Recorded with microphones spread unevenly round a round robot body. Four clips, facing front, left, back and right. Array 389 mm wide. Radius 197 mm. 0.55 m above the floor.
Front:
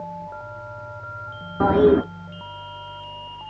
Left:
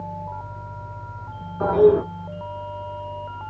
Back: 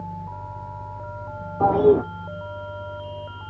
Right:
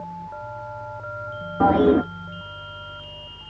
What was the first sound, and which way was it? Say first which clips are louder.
A toilet flushing: left 1 dB, front 1 dB; 40° right.